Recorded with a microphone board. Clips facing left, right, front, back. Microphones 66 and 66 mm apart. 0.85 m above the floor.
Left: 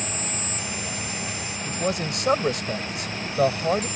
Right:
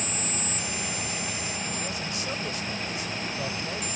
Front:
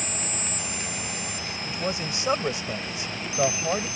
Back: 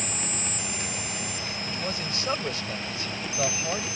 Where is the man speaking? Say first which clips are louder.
Left 7 dB, front 5 dB; 70° left.